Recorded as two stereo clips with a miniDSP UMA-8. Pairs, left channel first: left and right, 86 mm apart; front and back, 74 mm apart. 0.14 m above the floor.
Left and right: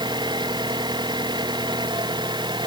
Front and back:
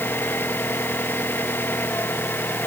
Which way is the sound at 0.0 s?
60° right.